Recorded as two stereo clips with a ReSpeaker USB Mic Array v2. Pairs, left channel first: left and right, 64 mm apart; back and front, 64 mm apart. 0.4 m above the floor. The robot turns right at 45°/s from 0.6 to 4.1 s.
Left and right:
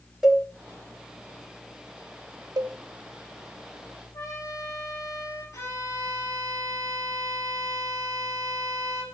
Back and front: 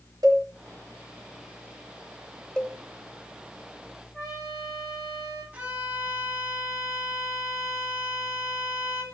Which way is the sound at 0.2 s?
15° right.